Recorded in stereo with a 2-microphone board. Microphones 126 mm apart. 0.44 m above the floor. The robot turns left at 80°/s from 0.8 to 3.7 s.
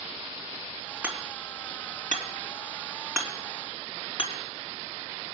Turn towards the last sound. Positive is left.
turn(degrees=45)  # may be behind; listen again after turning